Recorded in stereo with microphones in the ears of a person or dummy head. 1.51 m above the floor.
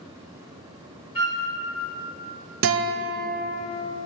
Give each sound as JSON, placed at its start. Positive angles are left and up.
{"t": 1.1, "sound": "a flute", "side_deg": 30, "distance_m": 1.4}
{"t": 2.6, "sound": "a guitar", "side_deg": -65, "distance_m": 0.6}